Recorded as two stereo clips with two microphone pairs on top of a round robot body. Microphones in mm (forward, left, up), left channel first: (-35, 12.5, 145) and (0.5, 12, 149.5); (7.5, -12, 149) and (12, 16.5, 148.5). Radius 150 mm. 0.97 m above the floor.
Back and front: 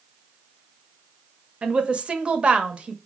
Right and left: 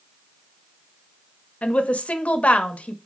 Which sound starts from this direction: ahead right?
A woman speaking, at 1.6 s.